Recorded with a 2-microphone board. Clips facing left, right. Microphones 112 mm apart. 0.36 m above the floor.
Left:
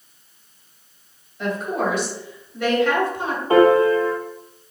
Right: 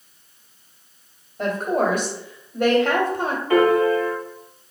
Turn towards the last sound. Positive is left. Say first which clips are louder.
# left 3 dB
turn(degrees=30)  # may be behind; listen again after turning